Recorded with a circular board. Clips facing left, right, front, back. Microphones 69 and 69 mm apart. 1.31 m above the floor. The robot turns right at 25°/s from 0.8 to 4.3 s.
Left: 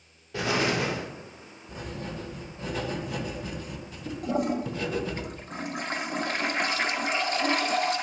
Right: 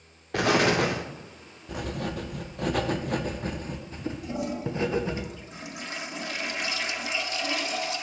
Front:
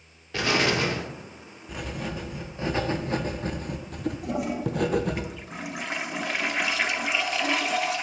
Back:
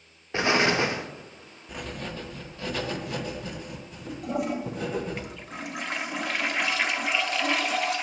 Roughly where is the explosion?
Behind right.